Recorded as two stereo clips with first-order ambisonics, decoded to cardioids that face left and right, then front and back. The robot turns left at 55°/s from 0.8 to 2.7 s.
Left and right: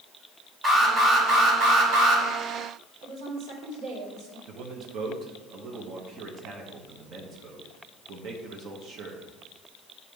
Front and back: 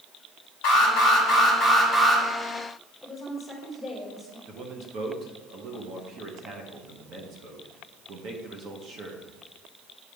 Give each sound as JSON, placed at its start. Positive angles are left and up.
{"t": 0.6, "sound": "an alarm", "azimuth_deg": -25, "distance_m": 3.0}
{"t": 3.0, "sound": "a woman speaking", "azimuth_deg": -95, "distance_m": 2.5}
{"t": 4.5, "sound": "a man speaking", "azimuth_deg": -135, "distance_m": 1.1}